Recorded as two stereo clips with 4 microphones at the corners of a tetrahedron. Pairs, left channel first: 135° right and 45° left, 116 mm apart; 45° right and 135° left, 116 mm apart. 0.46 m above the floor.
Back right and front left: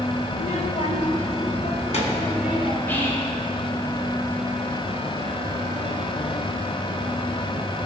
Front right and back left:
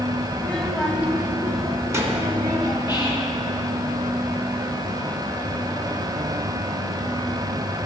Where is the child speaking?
110° right, 0.8 m; by 2.8 s 165° right, 3.5 m.